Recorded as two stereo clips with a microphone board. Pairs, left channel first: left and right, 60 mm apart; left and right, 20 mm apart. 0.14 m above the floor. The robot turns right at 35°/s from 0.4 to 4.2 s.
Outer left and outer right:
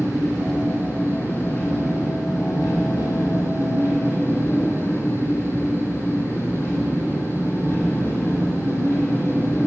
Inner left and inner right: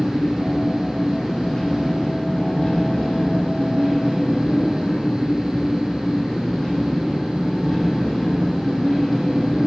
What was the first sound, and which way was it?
An engine running, straight ahead.